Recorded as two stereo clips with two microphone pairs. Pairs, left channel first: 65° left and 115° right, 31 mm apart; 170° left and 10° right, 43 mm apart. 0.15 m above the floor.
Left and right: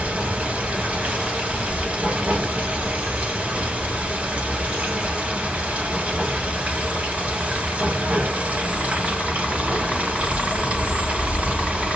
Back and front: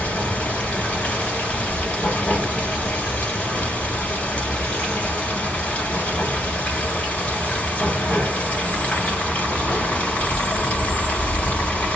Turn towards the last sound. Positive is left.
turn(degrees=-135)